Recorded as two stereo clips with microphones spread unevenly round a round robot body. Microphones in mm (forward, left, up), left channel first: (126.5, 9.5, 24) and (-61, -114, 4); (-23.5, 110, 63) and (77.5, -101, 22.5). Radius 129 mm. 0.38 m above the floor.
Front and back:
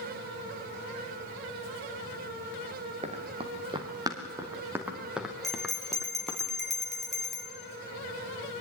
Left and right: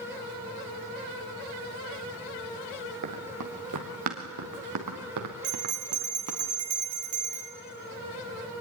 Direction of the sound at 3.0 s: 85° right.